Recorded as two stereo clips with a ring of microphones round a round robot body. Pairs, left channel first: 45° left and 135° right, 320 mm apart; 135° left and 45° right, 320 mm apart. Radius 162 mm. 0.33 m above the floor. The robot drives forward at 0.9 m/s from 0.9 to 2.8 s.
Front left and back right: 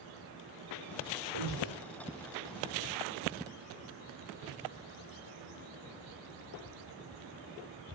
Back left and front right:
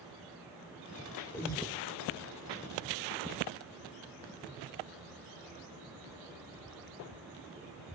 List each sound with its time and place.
1.3 s breathing: 145° right, 8.5 m